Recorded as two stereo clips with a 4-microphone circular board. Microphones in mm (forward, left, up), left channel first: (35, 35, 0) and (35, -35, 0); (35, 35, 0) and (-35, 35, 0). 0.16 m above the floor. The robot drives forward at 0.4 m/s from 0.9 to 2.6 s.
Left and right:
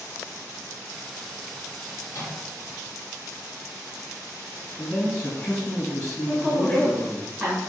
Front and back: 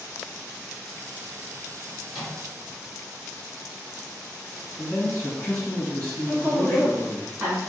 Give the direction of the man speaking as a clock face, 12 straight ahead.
10 o'clock.